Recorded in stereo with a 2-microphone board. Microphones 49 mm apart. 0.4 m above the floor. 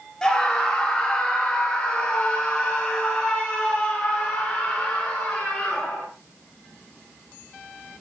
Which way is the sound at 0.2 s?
15° left (ahead or behind).